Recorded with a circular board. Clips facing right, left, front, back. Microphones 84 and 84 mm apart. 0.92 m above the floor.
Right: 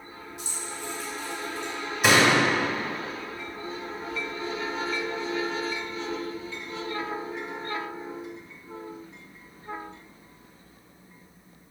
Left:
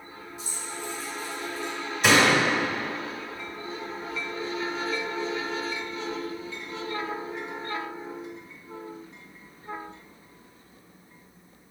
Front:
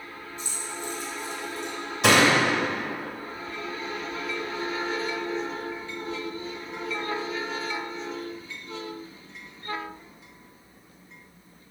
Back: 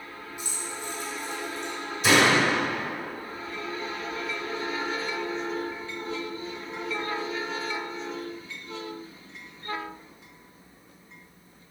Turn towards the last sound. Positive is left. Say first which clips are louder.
# even, front 1 dB
turn(degrees=-10)